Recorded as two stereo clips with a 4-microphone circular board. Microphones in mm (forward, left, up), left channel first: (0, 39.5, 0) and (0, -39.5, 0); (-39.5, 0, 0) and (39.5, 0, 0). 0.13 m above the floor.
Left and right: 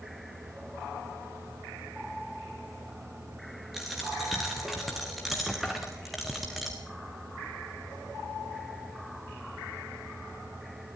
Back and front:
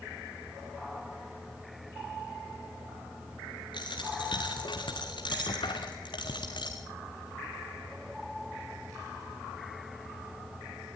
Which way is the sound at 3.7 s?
175° right.